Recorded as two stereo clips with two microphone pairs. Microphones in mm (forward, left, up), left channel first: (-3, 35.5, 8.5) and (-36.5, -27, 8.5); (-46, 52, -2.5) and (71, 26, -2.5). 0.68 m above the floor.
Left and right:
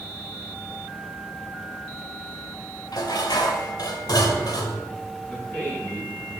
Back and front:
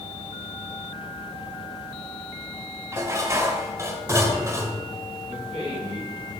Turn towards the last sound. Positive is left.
turn(degrees=-10)